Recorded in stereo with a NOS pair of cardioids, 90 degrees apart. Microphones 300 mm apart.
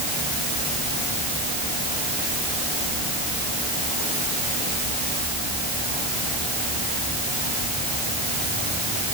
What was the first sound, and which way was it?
Only background noise.